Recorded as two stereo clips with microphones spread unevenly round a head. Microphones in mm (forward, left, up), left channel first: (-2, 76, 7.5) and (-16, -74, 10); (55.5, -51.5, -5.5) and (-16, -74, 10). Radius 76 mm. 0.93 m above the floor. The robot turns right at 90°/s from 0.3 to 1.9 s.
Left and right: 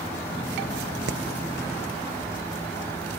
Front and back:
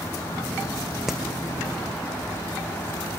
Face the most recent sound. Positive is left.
turn(degrees=-5)